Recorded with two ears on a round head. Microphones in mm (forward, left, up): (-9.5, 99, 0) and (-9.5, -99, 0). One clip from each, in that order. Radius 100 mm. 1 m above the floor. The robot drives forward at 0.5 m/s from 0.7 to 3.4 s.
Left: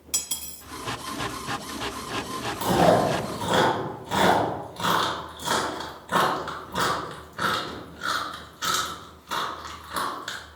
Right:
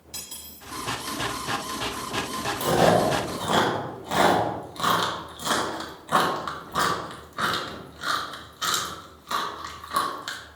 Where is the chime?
I don't hear a chime.